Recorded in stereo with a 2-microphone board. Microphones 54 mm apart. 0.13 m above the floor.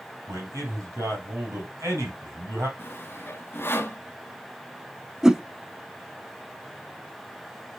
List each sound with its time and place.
0.3 s a man speaking: 70° right (ahead or behind), 3.5 m
2.8 s sawing: 45° left (ahead or behind), 1.1 m
5.2 s a whoosh: 10° right (ahead or behind), 0.7 m